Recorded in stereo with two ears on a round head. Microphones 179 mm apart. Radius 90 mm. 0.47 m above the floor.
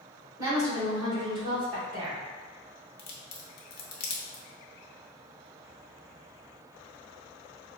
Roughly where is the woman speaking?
Centre.